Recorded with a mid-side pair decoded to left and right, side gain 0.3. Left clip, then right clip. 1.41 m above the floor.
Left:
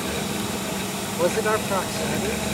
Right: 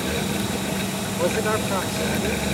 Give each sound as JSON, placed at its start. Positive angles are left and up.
{"t": 0.0, "sound": "a fan", "azimuth_deg": -40}
{"t": 1.2, "sound": "a man speaking", "azimuth_deg": 15}